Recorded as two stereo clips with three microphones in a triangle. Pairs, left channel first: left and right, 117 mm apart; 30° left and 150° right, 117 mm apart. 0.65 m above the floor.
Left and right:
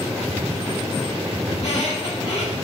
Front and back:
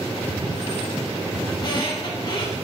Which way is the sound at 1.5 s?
75° left.